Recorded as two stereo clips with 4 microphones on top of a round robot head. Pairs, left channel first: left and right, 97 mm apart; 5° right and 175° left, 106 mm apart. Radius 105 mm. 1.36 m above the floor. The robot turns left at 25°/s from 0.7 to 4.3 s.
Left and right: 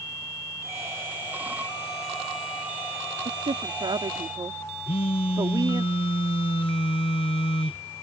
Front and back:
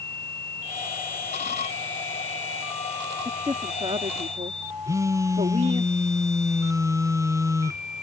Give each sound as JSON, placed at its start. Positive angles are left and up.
{"t": 3.2, "sound": "a woman speaking", "azimuth_deg": -115}
{"t": 4.8, "sound": "a phone buzzing", "azimuth_deg": 115}